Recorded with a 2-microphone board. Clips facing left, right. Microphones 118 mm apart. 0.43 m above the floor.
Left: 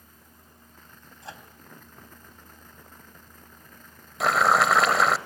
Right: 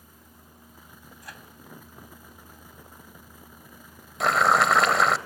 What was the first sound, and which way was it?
A microwave, 25° left (ahead or behind).